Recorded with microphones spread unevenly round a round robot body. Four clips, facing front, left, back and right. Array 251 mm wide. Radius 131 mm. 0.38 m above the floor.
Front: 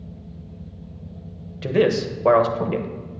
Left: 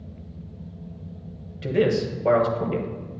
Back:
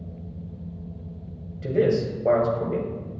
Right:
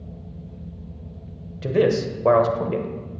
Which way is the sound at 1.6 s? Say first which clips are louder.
Right 2 dB, front 2 dB; 25° right.